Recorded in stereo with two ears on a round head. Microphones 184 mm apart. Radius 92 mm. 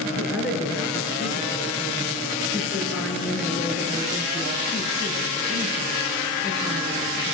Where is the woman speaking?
5° right (ahead or behind), 7.5 m.